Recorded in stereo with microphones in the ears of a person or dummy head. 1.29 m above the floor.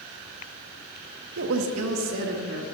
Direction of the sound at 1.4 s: 70° right (ahead or behind).